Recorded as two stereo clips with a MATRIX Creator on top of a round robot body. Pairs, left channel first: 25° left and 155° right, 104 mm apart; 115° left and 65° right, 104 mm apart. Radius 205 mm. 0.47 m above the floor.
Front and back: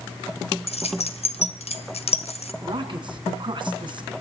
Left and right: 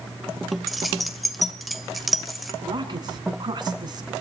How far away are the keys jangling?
About 2.5 m.